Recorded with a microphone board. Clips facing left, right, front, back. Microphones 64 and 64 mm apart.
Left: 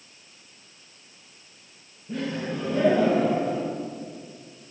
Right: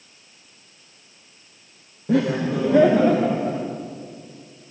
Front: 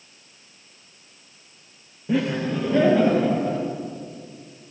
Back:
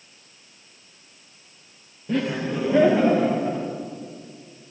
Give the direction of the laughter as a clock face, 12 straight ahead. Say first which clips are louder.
Right 9 dB, front 2 dB; 3 o'clock.